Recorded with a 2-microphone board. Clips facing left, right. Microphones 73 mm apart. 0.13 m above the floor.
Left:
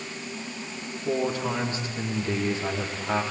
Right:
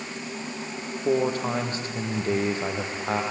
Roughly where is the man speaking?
Right.